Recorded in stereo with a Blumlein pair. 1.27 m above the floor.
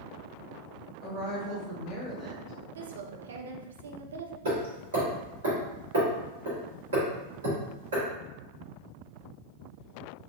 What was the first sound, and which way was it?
A woman speaking, 30° right.